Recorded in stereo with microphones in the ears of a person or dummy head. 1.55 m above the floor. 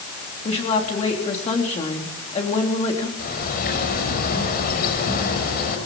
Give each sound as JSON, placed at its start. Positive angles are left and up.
{"t": 0.5, "sound": "a woman speaking", "side_deg": 30, "distance_m": 3.5}
{"t": 3.2, "sound": "a bird", "side_deg": 55, "distance_m": 6.5}